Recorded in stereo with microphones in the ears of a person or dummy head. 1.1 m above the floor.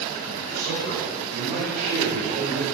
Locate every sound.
0.3 s a man speaking: 60° right (ahead or behind), 6 m; by 2.6 s 30° right (ahead or behind), 4 m